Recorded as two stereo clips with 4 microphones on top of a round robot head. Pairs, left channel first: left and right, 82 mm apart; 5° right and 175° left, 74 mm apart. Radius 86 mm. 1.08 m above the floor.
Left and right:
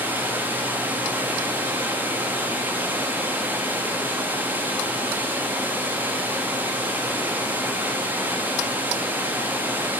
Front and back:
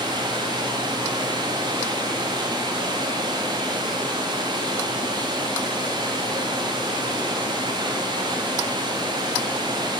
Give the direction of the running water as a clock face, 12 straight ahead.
5 o'clock.